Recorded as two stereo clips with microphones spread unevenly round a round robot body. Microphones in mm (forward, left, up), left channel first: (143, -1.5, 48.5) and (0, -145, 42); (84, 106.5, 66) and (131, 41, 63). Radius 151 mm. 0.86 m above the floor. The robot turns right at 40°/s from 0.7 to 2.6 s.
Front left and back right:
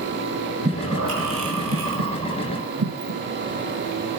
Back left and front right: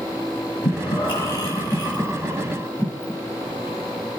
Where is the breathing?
165° left, 3 m; by 3.1 s 120° right, 3 m.